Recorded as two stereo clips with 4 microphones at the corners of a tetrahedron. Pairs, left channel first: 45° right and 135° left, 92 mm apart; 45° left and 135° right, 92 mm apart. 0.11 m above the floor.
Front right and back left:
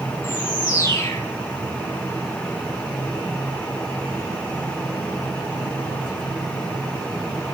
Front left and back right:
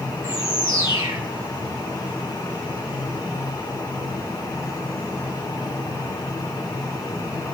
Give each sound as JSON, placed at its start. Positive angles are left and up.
{"t": 0.2, "sound": "a bird", "azimuth_deg": -95, "distance_m": 3.0}